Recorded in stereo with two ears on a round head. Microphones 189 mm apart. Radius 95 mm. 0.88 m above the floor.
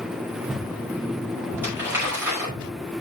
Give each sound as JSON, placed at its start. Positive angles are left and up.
{"t": 1.6, "sound": "crumpling", "side_deg": -10, "distance_m": 5.5}